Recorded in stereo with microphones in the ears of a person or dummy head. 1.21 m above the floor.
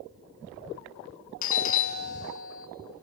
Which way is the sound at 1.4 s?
35° left (ahead or behind).